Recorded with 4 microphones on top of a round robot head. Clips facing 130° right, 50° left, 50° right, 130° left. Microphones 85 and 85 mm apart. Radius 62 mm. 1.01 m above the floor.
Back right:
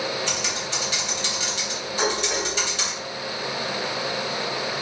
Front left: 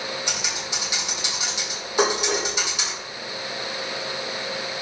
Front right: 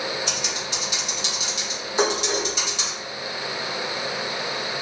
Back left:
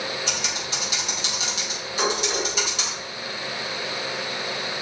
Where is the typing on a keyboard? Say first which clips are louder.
Back right 2 dB, even; 125° left, 3.5 m.